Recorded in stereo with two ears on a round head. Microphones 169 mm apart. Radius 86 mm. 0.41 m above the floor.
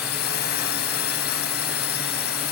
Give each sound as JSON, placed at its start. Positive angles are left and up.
{"t": 0.0, "sound": "a drone", "side_deg": 55}